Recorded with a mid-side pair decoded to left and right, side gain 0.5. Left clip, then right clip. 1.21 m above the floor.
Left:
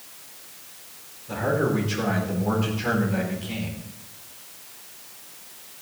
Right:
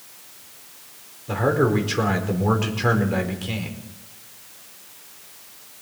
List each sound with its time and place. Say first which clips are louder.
1.3 s a man speaking: right 4 dB; 55° right, 4.5 m